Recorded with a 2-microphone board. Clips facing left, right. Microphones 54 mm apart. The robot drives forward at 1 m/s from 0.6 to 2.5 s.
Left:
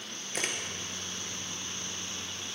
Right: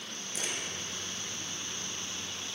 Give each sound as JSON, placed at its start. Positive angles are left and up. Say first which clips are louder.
{"t": 0.3, "sound": "a camera shutter", "louder": "left 4 dB", "side_deg": 60, "distance_m": 1.4}